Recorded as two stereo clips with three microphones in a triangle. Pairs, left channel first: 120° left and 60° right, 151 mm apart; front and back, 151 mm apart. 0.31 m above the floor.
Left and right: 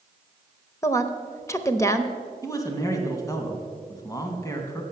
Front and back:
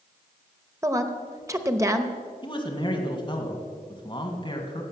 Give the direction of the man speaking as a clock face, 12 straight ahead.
10 o'clock.